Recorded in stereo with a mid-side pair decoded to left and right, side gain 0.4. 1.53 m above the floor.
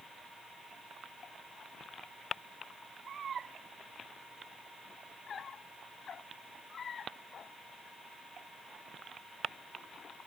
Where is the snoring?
No snoring in this recording.